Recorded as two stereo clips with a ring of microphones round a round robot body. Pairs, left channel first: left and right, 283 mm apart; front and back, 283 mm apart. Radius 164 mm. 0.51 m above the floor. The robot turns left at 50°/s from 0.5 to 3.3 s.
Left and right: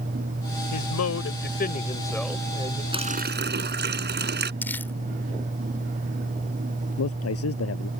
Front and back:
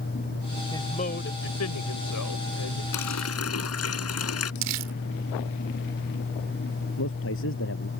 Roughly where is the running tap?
Ahead.